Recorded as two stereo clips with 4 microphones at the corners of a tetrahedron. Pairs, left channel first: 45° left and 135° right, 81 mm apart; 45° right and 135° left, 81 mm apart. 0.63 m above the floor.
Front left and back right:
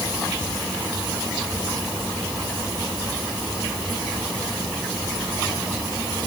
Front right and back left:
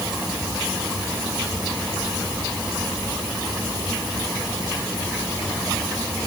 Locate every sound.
Only background noise.